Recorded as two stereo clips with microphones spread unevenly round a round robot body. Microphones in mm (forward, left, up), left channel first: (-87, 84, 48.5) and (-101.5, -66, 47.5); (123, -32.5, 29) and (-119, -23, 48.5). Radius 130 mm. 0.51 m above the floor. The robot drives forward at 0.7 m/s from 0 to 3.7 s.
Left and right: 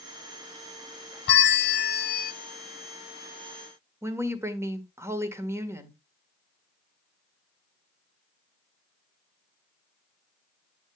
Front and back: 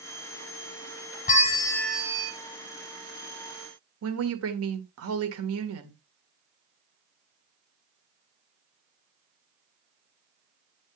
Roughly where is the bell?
Ahead left.